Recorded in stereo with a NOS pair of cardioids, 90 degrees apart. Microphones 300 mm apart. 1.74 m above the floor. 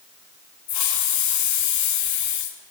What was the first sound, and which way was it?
A hiss, 65° left.